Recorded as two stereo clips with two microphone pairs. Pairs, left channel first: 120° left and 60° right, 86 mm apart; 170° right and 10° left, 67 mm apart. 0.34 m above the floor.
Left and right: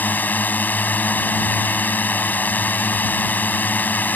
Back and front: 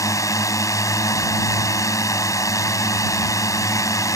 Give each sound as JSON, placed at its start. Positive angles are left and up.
{"t": 0.0, "sound": "a drone", "azimuth_deg": -170}